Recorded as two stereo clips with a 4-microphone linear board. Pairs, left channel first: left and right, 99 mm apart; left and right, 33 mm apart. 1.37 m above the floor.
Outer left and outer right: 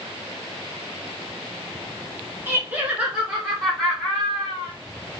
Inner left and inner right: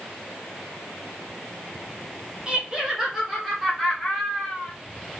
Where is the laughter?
25° right (ahead or behind), 2.5 m; by 4.7 s 15° left (ahead or behind), 3.5 m.